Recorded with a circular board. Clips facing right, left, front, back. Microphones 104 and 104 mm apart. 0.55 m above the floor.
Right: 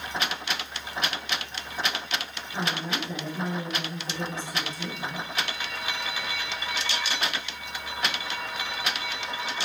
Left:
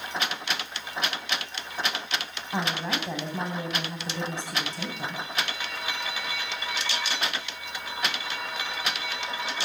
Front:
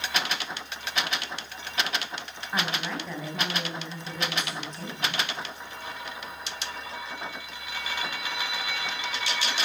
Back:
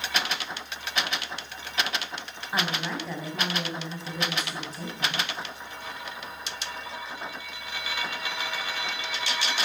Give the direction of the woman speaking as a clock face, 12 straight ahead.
9 o'clock.